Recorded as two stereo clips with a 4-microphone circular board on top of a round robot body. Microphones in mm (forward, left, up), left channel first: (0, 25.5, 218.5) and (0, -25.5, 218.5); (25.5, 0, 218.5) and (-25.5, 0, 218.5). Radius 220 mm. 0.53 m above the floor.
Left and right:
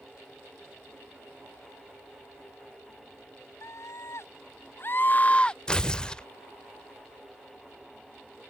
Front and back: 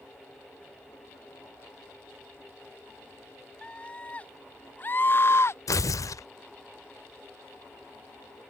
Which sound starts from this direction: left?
A scream, at 3.6 s.